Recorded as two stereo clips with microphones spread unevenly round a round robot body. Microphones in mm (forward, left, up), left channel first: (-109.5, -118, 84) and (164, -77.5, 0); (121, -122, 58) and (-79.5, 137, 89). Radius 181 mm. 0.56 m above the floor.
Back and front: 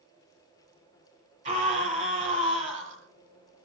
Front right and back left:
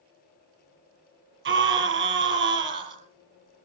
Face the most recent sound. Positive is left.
turn(degrees=70)